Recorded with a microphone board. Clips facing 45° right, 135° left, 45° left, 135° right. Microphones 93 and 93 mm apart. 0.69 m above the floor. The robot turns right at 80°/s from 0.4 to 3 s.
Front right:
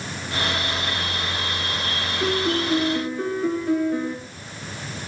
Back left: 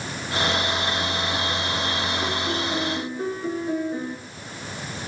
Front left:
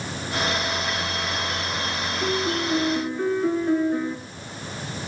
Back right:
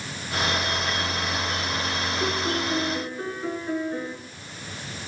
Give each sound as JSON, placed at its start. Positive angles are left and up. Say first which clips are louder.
{"t": 2.2, "sound": "a piano", "louder": "front right 4 dB, front left 3 dB", "azimuth_deg": -100, "distance_m": 4.5}